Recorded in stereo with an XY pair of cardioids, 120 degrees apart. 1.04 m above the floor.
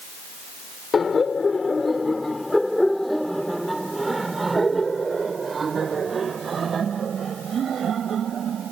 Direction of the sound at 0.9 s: 30° left.